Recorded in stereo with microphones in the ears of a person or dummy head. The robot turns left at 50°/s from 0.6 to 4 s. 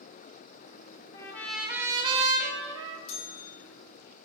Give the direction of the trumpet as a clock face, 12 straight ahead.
11 o'clock.